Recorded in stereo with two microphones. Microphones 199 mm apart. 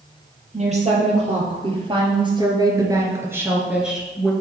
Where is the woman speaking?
35° right (ahead or behind), 3 m; by 4.3 s 5° left (ahead or behind), 1.6 m.